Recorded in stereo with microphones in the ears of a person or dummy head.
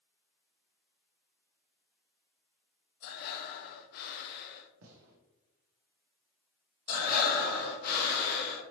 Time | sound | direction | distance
3.0 | breathing | 55° left (ahead or behind) | 0.5 m
4.8 | a gunshot | 80° right | 0.9 m
6.9 | breathing | 50° left (ahead or behind) | 1.0 m